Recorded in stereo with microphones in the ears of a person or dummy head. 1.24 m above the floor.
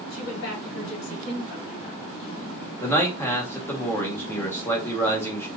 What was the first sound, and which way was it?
A woman speaking, 85° left.